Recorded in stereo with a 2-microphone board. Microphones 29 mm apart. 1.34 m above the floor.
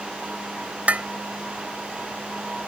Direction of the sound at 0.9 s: 55° right (ahead or behind).